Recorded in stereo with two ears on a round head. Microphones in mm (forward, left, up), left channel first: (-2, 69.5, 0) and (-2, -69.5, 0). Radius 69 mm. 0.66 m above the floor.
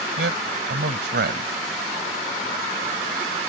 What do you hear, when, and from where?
0.2 s a man speaking: 75° right (ahead or behind)